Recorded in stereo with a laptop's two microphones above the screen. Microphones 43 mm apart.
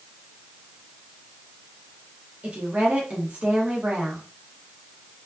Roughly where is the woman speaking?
Right.